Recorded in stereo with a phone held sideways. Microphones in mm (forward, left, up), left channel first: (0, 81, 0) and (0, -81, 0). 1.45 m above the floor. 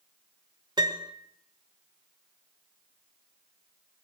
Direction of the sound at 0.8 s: 25° right (ahead or behind).